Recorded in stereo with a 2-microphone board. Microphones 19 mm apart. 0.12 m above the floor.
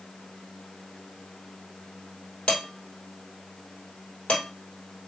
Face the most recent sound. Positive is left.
turn(degrees=65)  # may be behind; listen again after turning